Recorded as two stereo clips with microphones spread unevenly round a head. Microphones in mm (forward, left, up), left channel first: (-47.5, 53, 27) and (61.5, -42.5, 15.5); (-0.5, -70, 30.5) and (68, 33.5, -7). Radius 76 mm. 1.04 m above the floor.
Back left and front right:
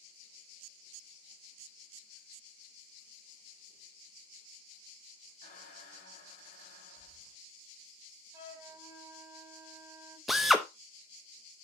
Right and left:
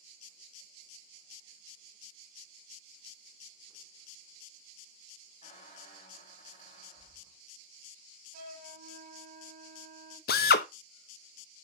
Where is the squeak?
Straight behind, 4.5 m.